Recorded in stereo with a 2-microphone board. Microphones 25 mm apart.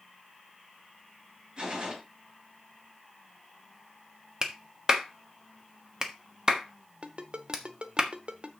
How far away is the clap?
About 1.3 m.